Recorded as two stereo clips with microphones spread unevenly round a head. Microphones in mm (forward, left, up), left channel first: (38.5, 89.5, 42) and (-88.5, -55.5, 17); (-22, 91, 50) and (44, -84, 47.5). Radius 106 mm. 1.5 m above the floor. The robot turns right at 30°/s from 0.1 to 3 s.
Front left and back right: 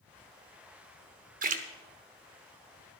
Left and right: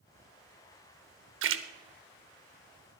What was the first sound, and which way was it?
A splash, 85° right.